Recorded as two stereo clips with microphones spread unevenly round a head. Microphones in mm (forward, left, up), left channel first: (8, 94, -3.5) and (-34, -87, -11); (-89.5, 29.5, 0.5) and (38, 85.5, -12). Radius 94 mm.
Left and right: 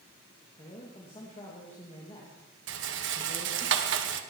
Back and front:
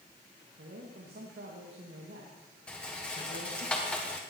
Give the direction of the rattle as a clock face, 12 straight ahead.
2 o'clock.